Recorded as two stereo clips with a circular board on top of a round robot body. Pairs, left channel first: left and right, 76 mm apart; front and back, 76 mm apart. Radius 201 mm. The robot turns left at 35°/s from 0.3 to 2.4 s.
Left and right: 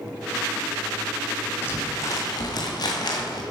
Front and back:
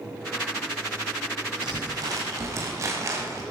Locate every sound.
1.6 s crumpling: 155° left, 1.7 m; by 3.4 s 130° left, 1.7 m